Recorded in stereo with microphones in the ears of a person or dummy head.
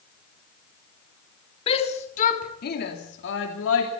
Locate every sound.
1.7 s a shout: 35° left (ahead or behind), 3 m; by 3.9 s 90° left, 3 m